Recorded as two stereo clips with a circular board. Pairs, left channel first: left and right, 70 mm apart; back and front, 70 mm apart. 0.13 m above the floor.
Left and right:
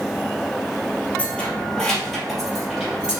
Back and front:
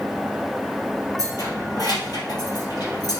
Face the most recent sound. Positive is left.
turn(degrees=-170)